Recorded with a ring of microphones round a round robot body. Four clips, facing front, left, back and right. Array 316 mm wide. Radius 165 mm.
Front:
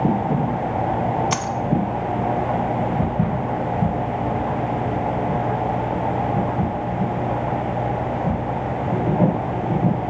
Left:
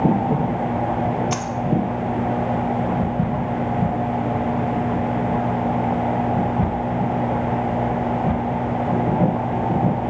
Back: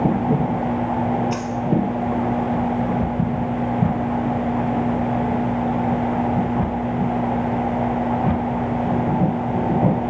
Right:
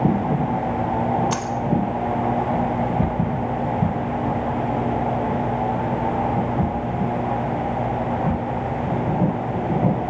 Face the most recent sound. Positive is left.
turn(degrees=-5)